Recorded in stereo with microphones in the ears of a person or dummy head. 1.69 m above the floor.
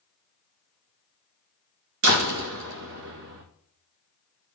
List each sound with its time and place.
2.0 s a door slam: 70° right (ahead or behind), 2 m